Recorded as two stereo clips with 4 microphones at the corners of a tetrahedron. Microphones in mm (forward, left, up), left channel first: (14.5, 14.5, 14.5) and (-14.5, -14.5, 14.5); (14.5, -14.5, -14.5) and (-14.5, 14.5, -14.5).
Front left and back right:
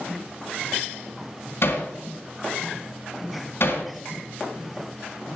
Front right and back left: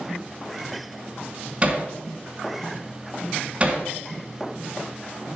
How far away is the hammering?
About 3 m.